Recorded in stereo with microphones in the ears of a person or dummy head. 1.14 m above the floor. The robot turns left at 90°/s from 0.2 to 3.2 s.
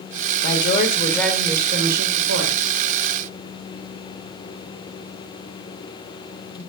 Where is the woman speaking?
80° left, 3.5 m; by 2.8 s 130° right, 3.5 m.